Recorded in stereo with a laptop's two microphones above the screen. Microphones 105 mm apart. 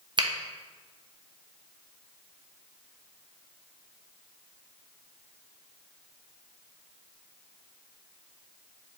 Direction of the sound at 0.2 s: 45° right (ahead or behind).